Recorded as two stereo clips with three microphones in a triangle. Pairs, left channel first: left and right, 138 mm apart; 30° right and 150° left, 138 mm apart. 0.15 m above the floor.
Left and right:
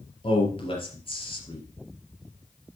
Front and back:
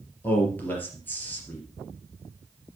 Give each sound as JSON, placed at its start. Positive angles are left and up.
{"t": 0.2, "sound": "a man speaking", "azimuth_deg": 45, "distance_m": 3.0}